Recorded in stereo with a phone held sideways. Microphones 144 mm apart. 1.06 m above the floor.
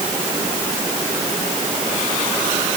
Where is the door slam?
I don't hear a door slam.